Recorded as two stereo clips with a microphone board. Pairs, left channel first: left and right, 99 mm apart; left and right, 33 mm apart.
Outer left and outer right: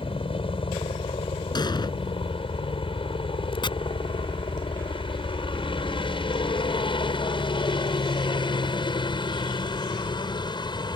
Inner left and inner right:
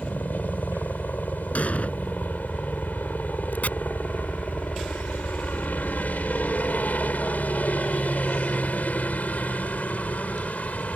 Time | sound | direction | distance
0.0 | a helicopter | 65° left (ahead or behind) | ?
1.6 | an explosion | 50° left (ahead or behind) | ?
3.6 | chopping | 55° left (ahead or behind) | ?